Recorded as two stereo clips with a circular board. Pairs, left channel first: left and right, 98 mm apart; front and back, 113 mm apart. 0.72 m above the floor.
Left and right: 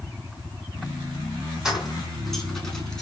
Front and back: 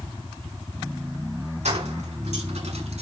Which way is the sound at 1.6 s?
175° right.